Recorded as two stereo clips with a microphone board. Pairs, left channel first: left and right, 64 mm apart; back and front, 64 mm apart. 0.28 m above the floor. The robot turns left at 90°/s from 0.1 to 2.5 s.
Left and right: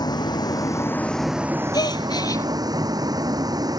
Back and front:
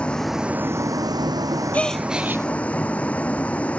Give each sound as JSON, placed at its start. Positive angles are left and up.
{"t": 0.0, "sound": "a vehicle", "azimuth_deg": 105}
{"t": 1.7, "sound": "a gasp", "azimuth_deg": 110}